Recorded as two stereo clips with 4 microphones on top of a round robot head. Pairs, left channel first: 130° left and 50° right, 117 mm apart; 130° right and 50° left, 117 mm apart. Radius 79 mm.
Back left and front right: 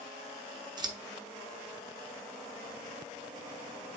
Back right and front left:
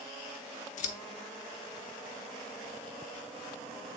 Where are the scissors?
105° right, 1.0 m.